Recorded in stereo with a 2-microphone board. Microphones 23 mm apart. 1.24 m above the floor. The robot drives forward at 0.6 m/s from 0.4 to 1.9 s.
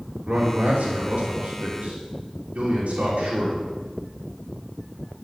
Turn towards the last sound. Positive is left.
turn(degrees=-85)